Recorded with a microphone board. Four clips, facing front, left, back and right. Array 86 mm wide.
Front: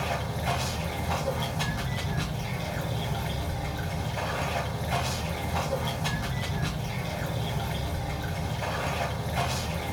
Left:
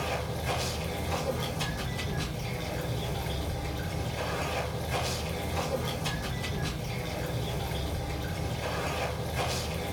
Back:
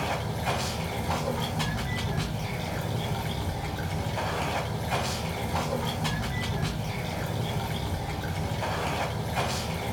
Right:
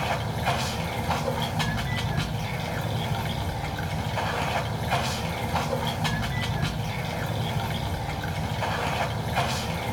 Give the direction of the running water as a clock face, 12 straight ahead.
3 o'clock.